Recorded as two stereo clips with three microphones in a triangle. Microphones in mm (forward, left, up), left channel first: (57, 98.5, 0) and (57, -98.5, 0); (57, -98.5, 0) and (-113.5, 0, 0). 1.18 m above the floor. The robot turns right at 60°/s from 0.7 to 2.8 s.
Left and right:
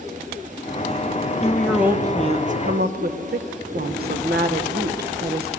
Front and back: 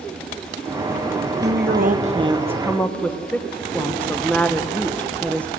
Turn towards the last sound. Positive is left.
turn(degrees=-115)